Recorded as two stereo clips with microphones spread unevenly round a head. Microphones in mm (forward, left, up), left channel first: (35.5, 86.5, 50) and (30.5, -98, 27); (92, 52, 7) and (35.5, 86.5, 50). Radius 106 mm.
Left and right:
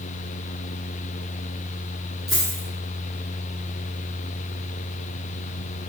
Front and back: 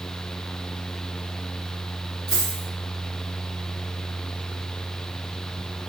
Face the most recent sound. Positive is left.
turn(degrees=165)